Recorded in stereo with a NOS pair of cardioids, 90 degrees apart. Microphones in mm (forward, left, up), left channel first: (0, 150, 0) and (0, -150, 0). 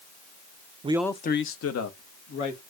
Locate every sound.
0.8 s a man speaking: 25° right, 0.6 m; by 2.6 s 70° left, 2.5 m